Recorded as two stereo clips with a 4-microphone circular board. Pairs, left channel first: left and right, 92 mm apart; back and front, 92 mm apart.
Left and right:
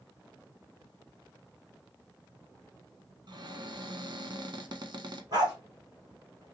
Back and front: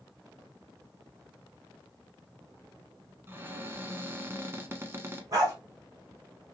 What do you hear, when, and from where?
3.3 s a cupboard door: 65° right, 0.8 m
5.3 s a dog barking: 50° right, 2.5 m